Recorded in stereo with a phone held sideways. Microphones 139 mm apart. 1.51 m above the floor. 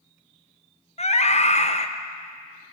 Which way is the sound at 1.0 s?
50° left (ahead or behind).